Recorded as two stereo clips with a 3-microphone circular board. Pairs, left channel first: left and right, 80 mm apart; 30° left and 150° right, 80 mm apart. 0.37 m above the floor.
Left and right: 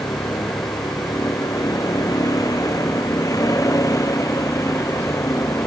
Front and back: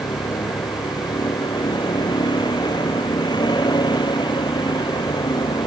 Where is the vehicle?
50° left; by 5.7 s 40° left.